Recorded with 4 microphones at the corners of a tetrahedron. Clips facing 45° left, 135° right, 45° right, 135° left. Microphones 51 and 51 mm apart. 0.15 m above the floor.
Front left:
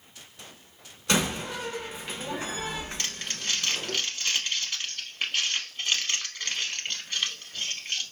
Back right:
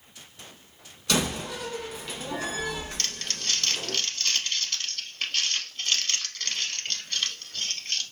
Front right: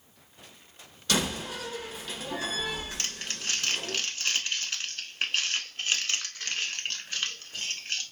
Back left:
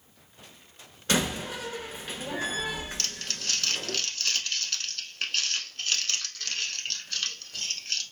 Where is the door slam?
90° left, 1.1 m.